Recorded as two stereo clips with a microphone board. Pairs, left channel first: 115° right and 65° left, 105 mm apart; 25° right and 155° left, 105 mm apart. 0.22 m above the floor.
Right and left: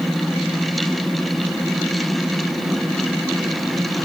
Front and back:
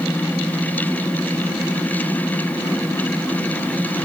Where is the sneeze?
No sneeze in this recording.